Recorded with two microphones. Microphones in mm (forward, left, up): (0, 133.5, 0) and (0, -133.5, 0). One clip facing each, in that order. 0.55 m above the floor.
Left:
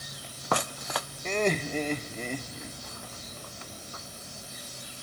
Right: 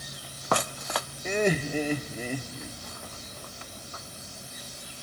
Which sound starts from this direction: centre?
Laughter, at 1.2 s.